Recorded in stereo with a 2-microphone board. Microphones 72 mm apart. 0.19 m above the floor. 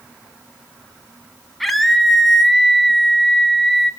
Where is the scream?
Centre (ahead or behind), 1.2 m.